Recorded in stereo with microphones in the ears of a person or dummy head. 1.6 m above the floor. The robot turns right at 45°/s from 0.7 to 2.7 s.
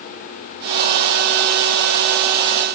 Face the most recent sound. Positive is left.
No sound to turn to.